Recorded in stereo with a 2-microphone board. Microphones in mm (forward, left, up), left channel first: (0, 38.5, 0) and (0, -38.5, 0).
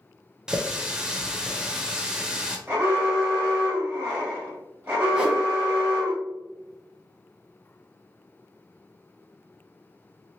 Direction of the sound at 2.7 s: 20° right (ahead or behind).